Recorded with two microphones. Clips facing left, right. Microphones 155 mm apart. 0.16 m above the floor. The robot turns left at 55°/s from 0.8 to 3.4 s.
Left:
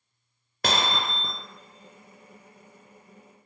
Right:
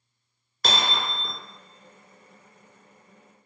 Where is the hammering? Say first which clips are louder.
Left 1 dB; 55° left (ahead or behind), 0.9 m; by 1.3 s 35° left (ahead or behind), 0.9 m.